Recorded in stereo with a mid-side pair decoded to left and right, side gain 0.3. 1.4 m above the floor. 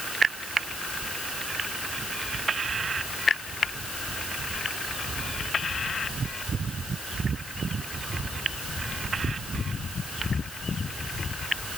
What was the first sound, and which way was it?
Only background noise.